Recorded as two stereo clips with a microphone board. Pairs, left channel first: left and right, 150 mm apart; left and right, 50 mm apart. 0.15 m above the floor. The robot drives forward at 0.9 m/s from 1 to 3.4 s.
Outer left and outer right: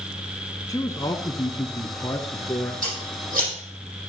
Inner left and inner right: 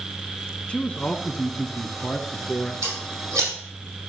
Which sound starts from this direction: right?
Scissors, at 2.8 s.